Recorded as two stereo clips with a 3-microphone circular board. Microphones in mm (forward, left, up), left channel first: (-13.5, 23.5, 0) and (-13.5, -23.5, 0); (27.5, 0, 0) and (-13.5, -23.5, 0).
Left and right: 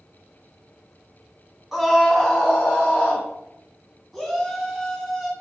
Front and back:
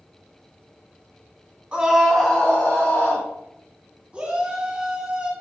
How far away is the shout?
About 1.7 m.